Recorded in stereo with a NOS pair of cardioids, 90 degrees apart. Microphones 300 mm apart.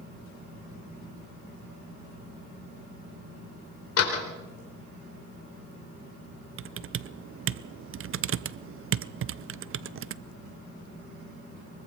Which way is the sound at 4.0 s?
55° left.